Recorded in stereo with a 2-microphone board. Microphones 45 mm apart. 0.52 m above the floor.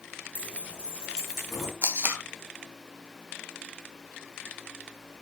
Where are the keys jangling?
30° right (ahead or behind), 4.5 m; by 1.7 s centre (ahead or behind), 4 m.